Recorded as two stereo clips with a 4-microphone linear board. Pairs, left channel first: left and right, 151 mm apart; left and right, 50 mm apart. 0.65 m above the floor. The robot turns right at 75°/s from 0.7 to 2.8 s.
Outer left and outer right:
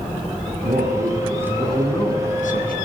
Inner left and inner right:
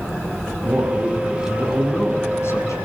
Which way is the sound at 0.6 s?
70° right.